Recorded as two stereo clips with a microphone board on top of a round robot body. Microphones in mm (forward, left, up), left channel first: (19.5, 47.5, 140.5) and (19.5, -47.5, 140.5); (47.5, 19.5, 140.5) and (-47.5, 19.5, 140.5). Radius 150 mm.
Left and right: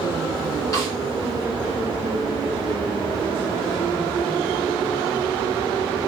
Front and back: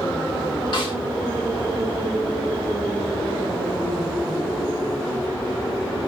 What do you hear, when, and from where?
0.7 s a snare drum: 35° left, 5.5 m